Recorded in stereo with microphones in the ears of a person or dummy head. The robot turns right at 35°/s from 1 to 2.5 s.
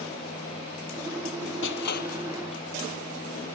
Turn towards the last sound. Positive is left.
turn(degrees=30)  # may be behind; listen again after turning